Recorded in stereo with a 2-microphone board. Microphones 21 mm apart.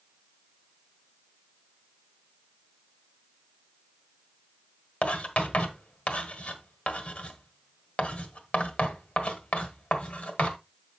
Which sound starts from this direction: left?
Writing, at 5.0 s.